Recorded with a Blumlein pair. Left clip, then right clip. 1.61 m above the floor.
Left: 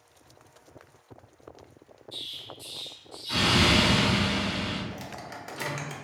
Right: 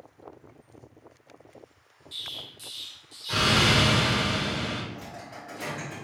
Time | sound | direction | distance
2.1 | an explosion | 60° right | 1.4 m
4.9 | a microwave | 50° left | 0.7 m